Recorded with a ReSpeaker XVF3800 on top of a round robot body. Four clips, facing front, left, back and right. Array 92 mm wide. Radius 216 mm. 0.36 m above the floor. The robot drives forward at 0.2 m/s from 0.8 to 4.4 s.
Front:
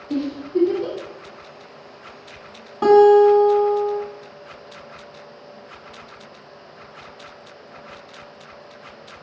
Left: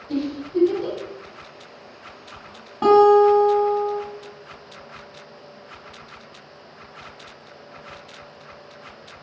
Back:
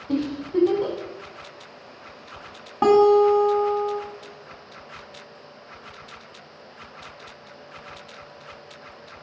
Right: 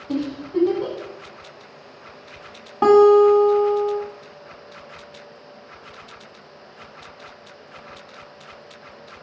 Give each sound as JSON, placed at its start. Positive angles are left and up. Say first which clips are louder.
{"t": 0.1, "sound": "a giggle", "louder": "even, front 1 dB", "azimuth_deg": -145, "distance_m": 0.8}
{"t": 2.8, "sound": "a guitar", "louder": "right 1 dB, front 4 dB", "azimuth_deg": -140, "distance_m": 1.5}